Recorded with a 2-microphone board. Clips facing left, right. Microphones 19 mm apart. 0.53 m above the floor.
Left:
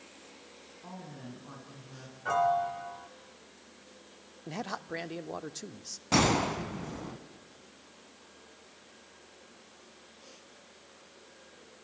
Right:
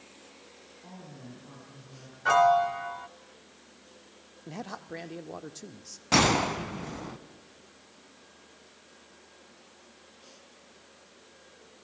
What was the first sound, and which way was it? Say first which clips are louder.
A woman speaking: left 2 dB; 40° left (ahead or behind).